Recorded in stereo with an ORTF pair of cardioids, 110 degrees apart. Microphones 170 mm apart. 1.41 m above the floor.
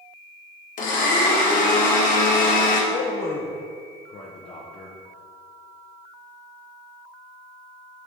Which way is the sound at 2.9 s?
40° left.